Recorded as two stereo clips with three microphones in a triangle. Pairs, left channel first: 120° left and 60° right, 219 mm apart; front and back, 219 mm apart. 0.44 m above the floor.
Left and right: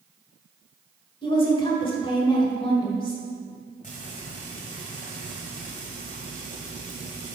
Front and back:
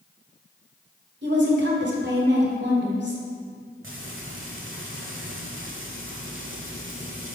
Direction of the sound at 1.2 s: Straight behind.